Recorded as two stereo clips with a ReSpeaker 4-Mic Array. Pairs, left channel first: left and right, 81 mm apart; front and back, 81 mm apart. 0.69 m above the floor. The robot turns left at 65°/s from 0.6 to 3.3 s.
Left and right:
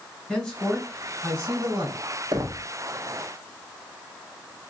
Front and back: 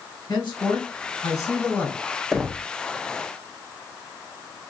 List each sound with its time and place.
0.3 s a man speaking: 5° left, 3 m; by 2.0 s 85° right, 3 m
2.3 s knocking: 90° right, 0.7 m; by 2.6 s 110° right, 0.7 m